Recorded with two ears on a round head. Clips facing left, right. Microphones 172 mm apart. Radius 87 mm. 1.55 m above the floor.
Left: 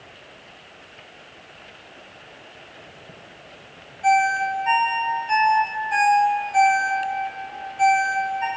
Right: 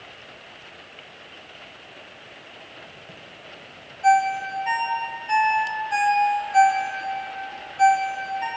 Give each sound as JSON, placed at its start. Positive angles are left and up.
{"t": 4.0, "sound": "a ringtone", "side_deg": -5, "distance_m": 0.8}